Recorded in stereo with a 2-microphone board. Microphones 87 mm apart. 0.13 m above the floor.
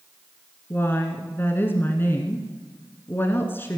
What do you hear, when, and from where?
0.7 s a woman speaking: 25° left (ahead or behind), 1.4 m